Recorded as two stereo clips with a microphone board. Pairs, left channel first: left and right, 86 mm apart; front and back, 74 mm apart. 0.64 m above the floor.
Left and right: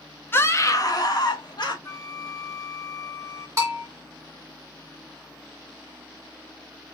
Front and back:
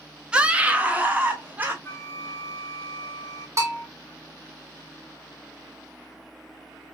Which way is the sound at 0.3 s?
115° left.